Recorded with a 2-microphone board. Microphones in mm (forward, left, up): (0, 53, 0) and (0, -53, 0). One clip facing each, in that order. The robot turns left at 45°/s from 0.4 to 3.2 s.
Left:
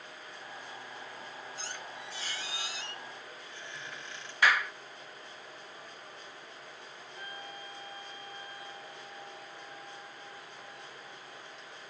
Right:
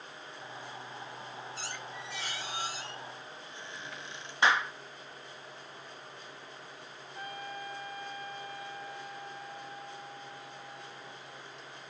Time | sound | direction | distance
1.6 | a squeak | 85° right | 5 m
4.4 | a clap | 25° right (ahead or behind) | 0.7 m
7.1 | a trumpet | 55° right (ahead or behind) | 7.5 m